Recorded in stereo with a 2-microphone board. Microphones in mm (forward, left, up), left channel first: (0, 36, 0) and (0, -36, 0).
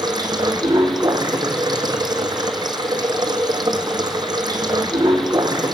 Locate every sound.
0.0 s running water: 75° right (ahead or behind), 1.7 m